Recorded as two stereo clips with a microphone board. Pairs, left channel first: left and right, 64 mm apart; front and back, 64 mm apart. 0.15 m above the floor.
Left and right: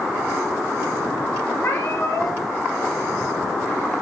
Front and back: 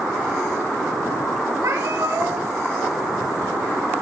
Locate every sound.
1.6 s a cat meowing: 145° left, 6.5 m